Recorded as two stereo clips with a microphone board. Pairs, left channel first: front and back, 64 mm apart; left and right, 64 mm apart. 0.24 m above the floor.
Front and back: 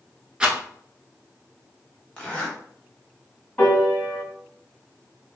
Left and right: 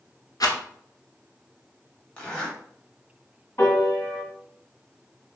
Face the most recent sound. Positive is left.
turn(degrees=55)